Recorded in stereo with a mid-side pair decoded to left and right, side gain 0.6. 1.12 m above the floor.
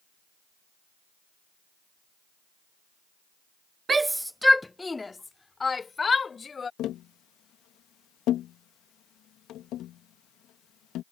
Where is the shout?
25° right; by 6.7 s 30° left.